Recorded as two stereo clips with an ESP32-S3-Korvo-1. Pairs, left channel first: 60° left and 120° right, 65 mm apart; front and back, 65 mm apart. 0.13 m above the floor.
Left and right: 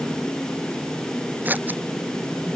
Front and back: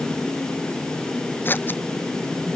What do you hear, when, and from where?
1.4 s scissors: 60° right